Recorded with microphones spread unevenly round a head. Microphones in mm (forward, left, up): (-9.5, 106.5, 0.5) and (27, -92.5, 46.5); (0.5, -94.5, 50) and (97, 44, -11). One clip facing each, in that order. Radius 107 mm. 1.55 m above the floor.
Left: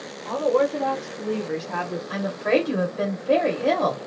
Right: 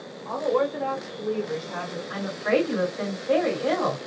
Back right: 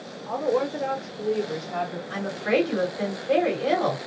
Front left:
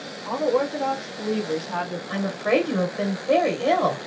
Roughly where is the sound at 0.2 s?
Ahead left.